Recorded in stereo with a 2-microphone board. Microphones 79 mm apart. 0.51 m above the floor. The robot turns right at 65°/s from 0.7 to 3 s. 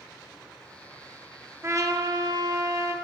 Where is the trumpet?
135° right, 0.6 m; by 3.0 s 50° right, 0.6 m.